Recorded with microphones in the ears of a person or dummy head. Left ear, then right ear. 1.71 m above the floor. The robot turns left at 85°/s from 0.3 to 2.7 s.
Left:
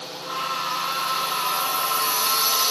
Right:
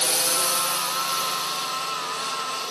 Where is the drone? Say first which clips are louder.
Right 6 dB; 55° right (ahead or behind); by 2.7 s 50° left (ahead or behind).